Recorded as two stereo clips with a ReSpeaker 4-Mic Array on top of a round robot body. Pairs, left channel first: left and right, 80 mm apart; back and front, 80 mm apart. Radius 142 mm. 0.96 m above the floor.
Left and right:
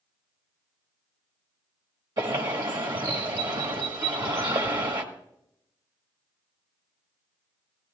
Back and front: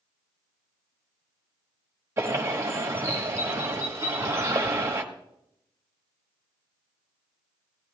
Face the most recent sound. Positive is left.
turn(degrees=-60)